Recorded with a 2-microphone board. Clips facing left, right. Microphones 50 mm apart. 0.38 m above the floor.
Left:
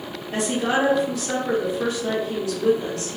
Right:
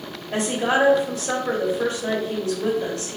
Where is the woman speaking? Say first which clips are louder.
Right 1 dB; 40° right (ahead or behind), 1.1 m.